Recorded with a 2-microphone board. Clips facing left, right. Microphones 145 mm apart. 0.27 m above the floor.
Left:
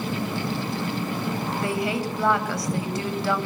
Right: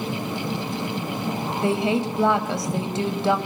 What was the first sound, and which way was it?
A woman speaking, 20° right (ahead or behind).